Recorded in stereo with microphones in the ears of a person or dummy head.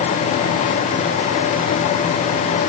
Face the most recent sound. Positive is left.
No sound to turn to.